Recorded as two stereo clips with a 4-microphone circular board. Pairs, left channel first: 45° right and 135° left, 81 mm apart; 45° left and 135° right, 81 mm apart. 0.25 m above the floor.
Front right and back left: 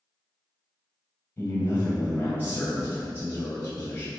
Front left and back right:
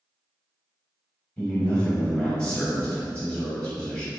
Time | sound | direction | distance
1.4 | a man speaking | 25° right | 1.0 m